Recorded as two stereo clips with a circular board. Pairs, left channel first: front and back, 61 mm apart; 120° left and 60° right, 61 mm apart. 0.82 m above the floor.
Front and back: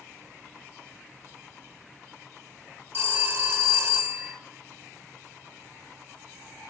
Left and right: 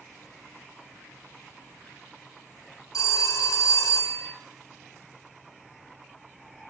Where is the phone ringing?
130° left, 1.8 m.